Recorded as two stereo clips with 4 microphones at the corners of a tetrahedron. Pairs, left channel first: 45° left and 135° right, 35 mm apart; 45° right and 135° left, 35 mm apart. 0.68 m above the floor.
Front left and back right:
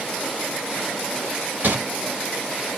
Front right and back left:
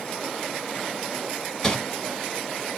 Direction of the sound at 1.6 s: 115° right.